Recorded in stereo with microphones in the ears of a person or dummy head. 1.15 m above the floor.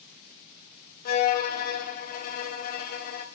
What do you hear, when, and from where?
1.1 s a violin: 50° left (ahead or behind), 0.7 m